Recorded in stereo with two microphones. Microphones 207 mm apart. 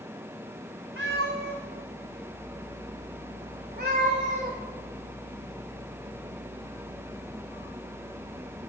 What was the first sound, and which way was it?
A cat meowing, 75° right (ahead or behind).